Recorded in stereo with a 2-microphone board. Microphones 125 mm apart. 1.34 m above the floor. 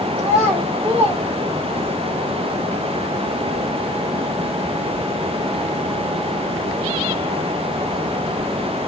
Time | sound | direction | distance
0.2 | a child speaking | 45° right (ahead or behind) | 3.5 m